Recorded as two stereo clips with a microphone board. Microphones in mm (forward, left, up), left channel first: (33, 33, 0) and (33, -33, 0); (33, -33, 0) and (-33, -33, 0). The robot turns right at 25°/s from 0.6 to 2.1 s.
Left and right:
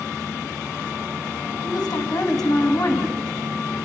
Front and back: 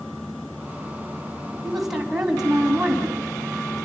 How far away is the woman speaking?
About 3.5 m.